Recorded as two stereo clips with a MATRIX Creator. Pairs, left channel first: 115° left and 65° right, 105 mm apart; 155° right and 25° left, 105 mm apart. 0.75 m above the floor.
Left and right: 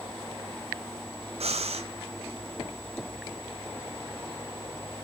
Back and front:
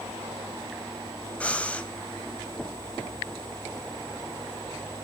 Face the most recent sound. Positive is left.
turn(degrees=-80)